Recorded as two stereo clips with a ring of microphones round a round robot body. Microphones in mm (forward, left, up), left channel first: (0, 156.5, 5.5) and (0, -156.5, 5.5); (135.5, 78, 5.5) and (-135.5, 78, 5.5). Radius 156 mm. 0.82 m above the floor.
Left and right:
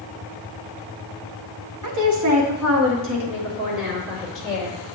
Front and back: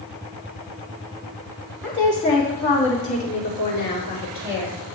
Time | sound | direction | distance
1.8 | a woman speaking | 90° right | 1.1 m